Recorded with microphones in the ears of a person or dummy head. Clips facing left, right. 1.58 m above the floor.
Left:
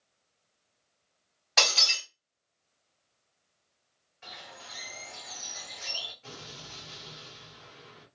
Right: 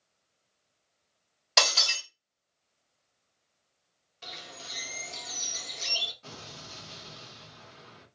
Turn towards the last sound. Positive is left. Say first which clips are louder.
# even
turn(degrees=-55)  # may be behind; listen again after turning